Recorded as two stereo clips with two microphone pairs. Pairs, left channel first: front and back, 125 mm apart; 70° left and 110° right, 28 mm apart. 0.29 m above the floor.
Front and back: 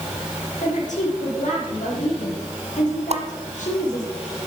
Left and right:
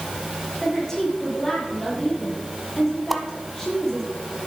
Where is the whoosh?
160° left, 0.9 m.